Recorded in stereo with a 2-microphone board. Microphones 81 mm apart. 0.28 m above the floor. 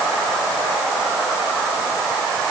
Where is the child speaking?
I don't hear a child speaking.